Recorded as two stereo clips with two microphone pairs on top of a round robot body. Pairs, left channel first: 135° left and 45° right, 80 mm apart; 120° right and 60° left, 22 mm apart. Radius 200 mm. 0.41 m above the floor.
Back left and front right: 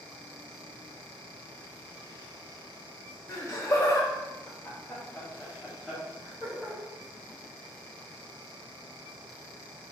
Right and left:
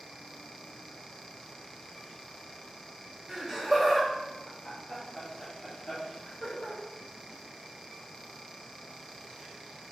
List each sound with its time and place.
3.3 s laughter: 130° left, 1.5 m; by 6.8 s 135° right, 2 m